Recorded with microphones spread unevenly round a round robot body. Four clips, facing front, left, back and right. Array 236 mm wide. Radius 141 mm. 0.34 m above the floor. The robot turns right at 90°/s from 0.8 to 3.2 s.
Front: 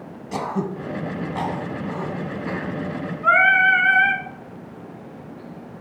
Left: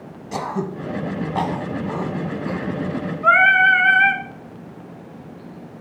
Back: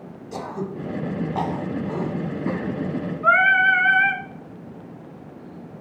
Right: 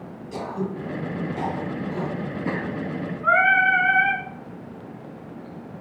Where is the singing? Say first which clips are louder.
Left 4 dB, front 1 dB; 135° left, 1.5 m.